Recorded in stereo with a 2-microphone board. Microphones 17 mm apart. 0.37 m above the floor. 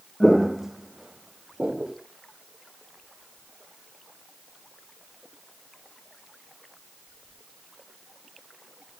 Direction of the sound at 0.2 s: 5° left (ahead or behind).